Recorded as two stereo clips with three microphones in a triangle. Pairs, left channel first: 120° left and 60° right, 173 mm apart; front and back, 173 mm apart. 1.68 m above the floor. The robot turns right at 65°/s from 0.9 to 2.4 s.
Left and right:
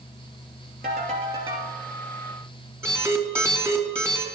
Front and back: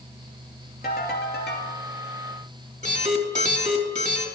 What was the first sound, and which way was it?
A ringtone, 35° right.